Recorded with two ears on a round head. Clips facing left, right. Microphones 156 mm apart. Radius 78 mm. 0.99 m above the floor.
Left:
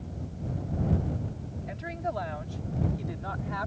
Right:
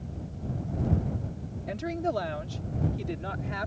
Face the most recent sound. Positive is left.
turn(degrees=-30)  # may be behind; listen again after turning